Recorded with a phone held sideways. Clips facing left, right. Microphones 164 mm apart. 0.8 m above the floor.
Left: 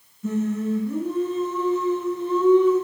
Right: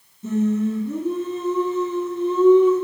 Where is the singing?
25° right (ahead or behind), 1.5 m.